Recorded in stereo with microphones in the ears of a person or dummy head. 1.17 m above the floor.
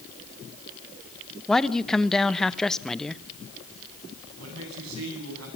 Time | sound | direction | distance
1.5 | a man speaking | 5° left (ahead or behind) | 0.7 m
4.4 | a man speaking | 85° right | 9 m